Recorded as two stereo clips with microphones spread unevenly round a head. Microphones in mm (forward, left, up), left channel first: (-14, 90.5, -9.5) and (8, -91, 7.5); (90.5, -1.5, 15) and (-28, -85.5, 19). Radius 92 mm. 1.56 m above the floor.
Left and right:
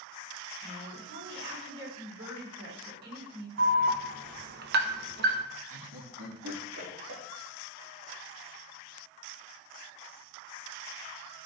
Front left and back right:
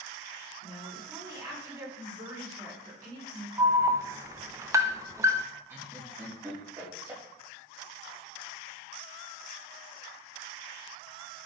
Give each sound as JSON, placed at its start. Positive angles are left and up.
{"t": 0.6, "sound": "a woman speaking", "azimuth_deg": -80, "distance_m": 4.5}
{"t": 3.6, "sound": "an alarm", "azimuth_deg": -80, "distance_m": 0.8}
{"t": 5.7, "sound": "laughter", "azimuth_deg": -70, "distance_m": 3.0}